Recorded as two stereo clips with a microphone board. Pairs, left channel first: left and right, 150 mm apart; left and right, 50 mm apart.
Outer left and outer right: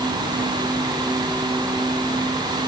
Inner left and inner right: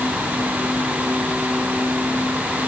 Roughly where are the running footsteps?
I don't hear running footsteps.